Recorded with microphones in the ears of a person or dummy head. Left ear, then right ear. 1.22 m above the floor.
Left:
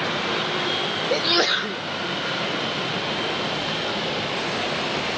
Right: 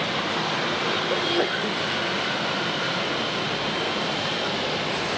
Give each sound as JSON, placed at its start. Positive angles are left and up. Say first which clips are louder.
{"t": 1.1, "sound": "a sneeze", "louder": "left 3 dB", "side_deg": 50}